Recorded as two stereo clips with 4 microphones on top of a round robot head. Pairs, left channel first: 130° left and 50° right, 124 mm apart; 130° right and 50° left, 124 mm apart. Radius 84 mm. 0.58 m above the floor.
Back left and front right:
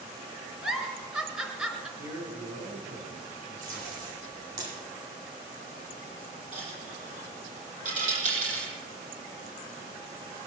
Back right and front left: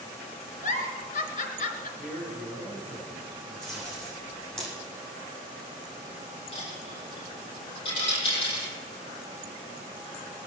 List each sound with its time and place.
0.6 s a giggle: 135° right, 3.5 m
2.0 s a man speaking: 35° right, 6.5 m
3.6 s tape being pulled: 40° right, 9.5 m
6.5 s a dropped coin: 80° right, 6.5 m